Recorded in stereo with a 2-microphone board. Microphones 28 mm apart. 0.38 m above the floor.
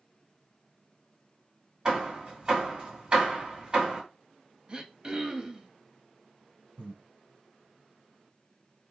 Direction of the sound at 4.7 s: 30° right (ahead or behind).